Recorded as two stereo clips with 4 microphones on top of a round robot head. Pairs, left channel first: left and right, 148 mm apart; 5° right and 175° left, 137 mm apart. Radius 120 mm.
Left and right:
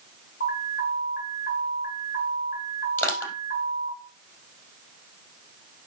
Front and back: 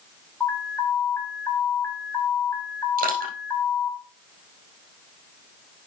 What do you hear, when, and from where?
0.4 s an alarm: 70° left, 3.5 m
3.0 s crushing: 165° left, 3.5 m